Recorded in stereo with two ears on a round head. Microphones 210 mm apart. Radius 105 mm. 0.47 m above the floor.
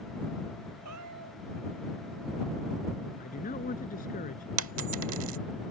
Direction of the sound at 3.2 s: 35° left (ahead or behind).